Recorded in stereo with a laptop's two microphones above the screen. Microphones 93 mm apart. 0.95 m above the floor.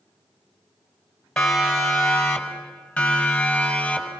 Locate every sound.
1.4 s a siren: 5° left (ahead or behind), 4.5 m; by 4.1 s 10° left (ahead or behind), 7.5 m